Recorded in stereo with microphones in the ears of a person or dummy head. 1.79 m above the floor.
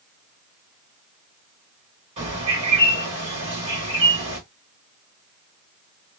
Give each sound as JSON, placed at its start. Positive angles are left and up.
{"t": 2.2, "sound": "a bird", "side_deg": -30, "distance_m": 1.2}